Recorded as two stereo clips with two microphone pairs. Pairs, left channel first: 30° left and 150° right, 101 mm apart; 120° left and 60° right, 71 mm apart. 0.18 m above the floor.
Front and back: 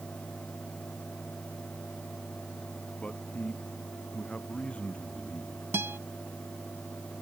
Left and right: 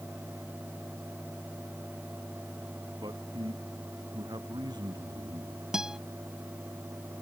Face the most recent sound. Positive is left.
turn(degrees=-125)